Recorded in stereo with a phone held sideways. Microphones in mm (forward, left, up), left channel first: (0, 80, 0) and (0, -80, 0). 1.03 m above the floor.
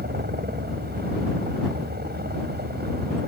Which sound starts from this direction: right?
A helicopter, at 0.0 s.